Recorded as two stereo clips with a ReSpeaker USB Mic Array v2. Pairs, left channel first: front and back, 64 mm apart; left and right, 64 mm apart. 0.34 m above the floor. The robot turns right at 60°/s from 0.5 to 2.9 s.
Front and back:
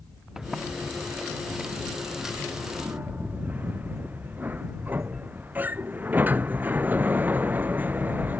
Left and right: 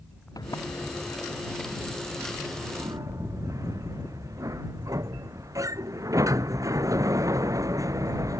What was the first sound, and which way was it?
A sliding door, 95° left.